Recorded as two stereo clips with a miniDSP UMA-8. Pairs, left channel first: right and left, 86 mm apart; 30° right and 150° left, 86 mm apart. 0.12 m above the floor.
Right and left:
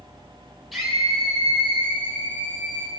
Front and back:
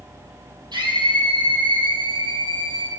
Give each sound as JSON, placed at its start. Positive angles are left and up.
{"t": 0.7, "sound": "a scream", "azimuth_deg": 180, "distance_m": 4.0}